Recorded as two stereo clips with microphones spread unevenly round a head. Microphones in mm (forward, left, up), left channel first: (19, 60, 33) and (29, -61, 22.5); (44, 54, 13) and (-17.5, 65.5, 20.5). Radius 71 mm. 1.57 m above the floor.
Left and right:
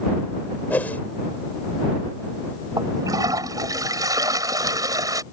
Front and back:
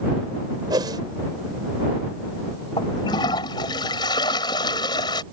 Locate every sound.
0.7 s a whoosh: 175° left
2.8 s a toilet flushing: 20° right